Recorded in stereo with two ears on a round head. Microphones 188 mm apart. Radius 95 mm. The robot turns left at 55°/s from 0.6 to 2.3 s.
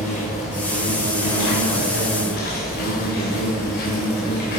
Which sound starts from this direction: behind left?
An insect, at 0.0 s.